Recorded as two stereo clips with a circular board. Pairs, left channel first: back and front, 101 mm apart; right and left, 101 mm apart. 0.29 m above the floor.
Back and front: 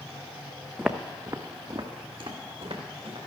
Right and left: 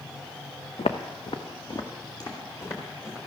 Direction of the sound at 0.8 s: 90° right.